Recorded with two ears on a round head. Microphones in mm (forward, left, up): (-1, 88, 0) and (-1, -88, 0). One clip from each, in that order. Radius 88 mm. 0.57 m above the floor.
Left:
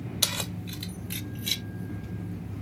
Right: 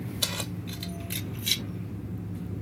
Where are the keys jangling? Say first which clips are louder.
Left 3 dB; 20° left (ahead or behind); by 1.6 s 10° right (ahead or behind).